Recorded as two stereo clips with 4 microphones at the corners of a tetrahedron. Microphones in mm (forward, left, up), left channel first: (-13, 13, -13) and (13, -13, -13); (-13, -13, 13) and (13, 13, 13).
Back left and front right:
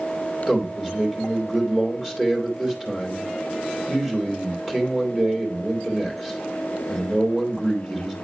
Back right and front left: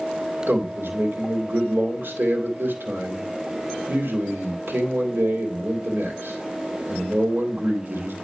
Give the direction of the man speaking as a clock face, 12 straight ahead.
11 o'clock.